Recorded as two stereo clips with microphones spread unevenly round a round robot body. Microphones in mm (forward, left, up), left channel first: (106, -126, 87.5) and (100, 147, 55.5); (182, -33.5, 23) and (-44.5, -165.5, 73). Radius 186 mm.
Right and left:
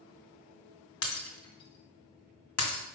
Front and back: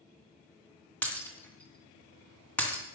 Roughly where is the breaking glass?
Ahead right.